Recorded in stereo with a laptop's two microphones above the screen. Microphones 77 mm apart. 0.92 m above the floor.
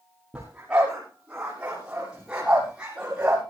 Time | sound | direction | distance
0.3 | a dog barking | 15° right (ahead or behind) | 7 m